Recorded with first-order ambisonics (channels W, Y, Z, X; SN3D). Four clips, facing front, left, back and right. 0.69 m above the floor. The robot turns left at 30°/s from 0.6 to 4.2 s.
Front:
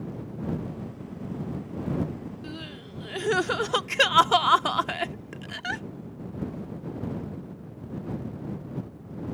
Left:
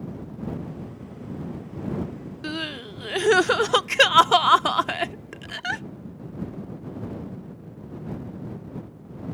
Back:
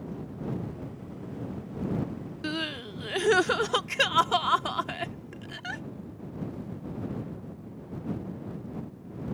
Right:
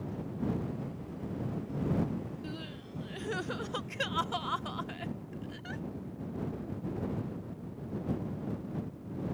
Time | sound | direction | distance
2.4 | crying | 125° left | ?